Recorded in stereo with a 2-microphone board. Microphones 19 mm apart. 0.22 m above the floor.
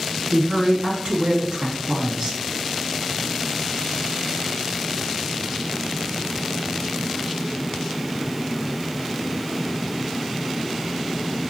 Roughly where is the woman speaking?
Right.